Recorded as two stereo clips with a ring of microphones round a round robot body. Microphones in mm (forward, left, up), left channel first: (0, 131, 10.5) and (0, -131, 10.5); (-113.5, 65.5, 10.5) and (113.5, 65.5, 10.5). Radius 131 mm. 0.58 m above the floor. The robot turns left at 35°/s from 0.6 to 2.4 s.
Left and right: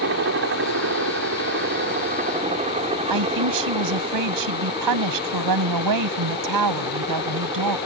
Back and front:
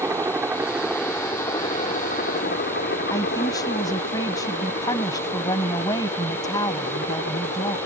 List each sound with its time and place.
0.0 s a helicopter: 75° right; by 7.9 s 160° right
3.1 s a man speaking: 100° right